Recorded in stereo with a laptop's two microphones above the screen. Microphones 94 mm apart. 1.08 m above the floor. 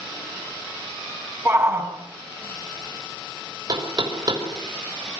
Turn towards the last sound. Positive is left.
turn(degrees=-50)  # may be behind; listen again after turning